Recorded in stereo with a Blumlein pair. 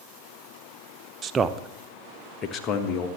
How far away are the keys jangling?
I don't hear keys jangling.